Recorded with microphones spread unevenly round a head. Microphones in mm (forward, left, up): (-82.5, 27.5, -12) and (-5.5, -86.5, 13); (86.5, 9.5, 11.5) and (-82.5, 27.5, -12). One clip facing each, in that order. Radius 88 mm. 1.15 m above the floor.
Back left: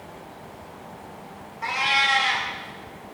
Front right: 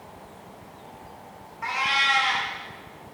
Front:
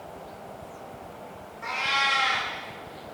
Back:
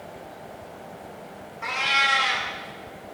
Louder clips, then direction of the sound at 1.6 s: Back left 2 dB, back 1 dB; straight behind.